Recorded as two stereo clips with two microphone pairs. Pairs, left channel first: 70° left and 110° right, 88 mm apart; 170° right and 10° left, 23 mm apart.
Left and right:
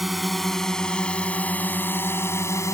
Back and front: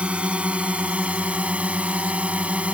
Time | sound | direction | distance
0.0 | a drone | 20° right | ?